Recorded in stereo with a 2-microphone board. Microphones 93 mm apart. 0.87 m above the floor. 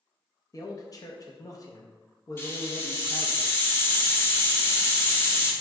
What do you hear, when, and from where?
0.5 s a man speaking: 40° left (ahead or behind), 0.6 m
2.4 s a hiss: 25° left (ahead or behind), 0.6 m